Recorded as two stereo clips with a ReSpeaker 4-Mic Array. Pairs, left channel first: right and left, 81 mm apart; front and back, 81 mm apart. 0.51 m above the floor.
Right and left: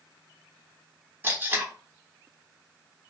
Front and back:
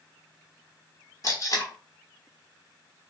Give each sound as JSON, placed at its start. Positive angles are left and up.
{"t": 1.2, "sound": "tape being pulled", "azimuth_deg": 30, "distance_m": 0.8}